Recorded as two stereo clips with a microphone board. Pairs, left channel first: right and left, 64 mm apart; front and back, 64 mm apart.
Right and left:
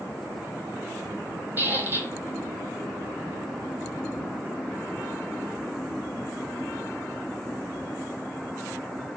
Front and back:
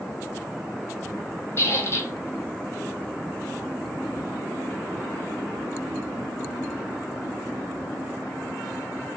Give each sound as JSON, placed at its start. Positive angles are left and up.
{"t": 1.6, "sound": "a squeak", "azimuth_deg": 35, "distance_m": 1.0}